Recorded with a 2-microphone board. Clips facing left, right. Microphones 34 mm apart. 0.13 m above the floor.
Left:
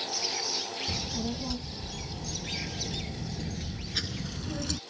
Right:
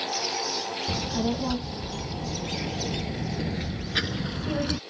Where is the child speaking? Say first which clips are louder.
Right 9 dB; 35° right (ahead or behind); by 4.8 s 25° right (ahead or behind).